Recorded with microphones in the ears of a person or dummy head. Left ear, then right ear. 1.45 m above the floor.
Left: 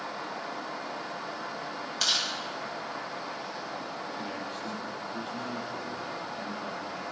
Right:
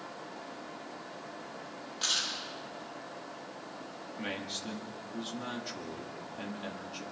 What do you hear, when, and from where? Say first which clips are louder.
2.0 s chewing: left 4 dB; 55° left (ahead or behind), 8.5 m
4.2 s a man speaking: left 2 dB; 55° right (ahead or behind), 2.5 m